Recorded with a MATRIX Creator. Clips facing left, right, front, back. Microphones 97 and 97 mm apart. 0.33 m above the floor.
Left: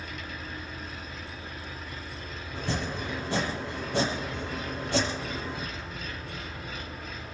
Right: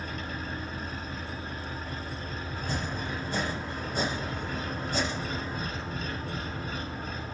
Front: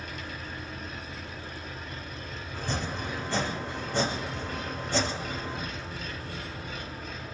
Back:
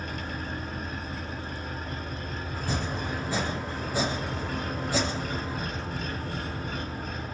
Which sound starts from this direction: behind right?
An engine running, at 0.0 s.